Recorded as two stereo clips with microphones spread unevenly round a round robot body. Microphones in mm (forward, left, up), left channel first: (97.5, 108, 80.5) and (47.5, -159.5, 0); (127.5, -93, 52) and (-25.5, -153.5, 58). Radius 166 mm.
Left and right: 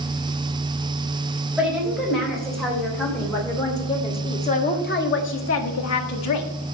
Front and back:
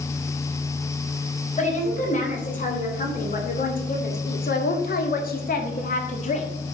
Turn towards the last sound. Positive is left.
turn(degrees=75)